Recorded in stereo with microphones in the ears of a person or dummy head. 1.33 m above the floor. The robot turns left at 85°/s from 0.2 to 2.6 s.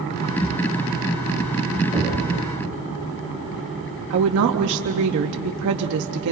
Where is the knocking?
15° right (ahead or behind), 6 m; by 2.2 s 10° left (ahead or behind), 6 m.